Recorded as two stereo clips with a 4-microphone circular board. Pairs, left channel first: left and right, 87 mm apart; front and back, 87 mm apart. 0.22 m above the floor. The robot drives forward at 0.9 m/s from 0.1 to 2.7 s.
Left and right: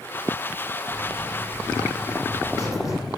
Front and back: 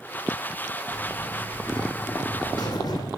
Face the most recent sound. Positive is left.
turn(degrees=40)